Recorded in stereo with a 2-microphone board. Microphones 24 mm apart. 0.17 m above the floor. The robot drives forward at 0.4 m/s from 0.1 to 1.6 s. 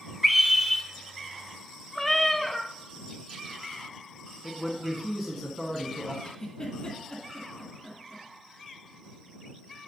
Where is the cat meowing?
10° left (ahead or behind), 0.7 m.